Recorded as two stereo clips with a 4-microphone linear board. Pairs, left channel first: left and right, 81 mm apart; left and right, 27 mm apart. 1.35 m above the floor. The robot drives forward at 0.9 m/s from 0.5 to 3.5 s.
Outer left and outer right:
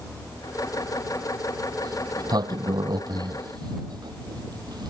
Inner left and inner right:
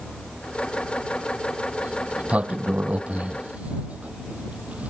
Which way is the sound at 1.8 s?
55° right (ahead or behind).